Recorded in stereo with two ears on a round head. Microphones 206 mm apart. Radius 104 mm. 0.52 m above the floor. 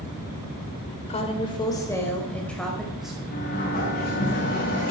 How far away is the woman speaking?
About 1.8 m.